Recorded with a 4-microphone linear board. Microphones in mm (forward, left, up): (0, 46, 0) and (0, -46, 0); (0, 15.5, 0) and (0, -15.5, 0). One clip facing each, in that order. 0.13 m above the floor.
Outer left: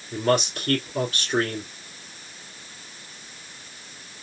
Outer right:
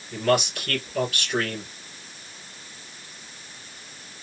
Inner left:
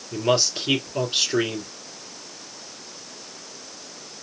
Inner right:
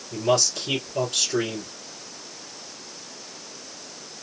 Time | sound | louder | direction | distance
0.1 | a man speaking | even, inner left 1 dB | 35° left (ahead or behind) | 3 m